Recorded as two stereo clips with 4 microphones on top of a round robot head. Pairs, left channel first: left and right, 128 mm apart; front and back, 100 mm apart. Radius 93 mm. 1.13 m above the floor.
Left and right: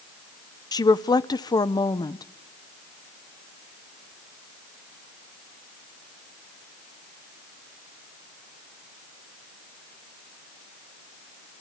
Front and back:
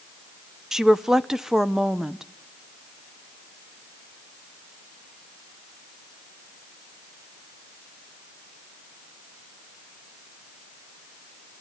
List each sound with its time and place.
0.7 s a woman speaking: 100° left, 0.7 m